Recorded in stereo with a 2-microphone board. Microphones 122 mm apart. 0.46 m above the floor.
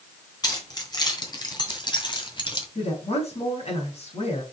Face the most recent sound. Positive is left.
turn(degrees=60)  # may be behind; listen again after turning